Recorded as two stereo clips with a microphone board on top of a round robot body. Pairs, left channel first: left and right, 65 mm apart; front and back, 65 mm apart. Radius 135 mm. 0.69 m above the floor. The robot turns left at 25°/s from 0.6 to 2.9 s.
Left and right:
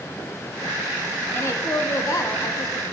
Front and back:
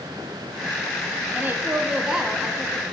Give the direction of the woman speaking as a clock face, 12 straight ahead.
8 o'clock.